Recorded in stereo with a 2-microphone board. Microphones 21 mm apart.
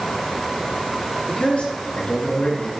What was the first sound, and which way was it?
A man speaking, 60° left (ahead or behind).